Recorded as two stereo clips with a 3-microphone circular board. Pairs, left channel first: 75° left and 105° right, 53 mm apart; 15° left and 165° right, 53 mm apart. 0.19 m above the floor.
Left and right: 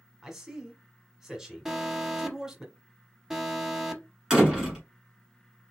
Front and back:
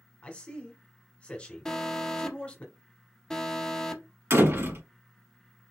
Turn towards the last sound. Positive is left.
turn(degrees=180)